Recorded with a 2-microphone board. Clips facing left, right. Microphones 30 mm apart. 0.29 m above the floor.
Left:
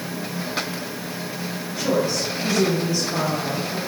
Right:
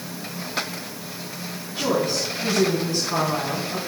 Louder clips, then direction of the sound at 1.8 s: Left 1 dB; 65° right (ahead or behind).